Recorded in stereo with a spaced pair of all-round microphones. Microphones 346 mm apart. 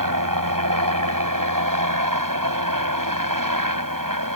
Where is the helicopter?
65° right (ahead or behind).